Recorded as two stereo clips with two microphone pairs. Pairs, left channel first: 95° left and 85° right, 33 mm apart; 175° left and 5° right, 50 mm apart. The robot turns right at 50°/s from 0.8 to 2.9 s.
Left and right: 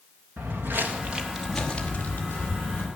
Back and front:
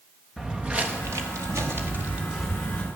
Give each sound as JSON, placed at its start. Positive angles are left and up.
{"t": 0.4, "sound": "footsteps", "azimuth_deg": -85, "distance_m": 1.8}